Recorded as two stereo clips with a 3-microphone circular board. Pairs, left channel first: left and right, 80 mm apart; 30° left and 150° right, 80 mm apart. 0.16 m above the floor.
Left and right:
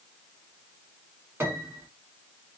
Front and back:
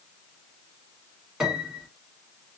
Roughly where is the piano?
Right.